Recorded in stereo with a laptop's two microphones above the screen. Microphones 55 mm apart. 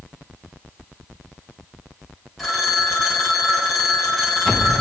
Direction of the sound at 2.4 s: Centre (ahead or behind).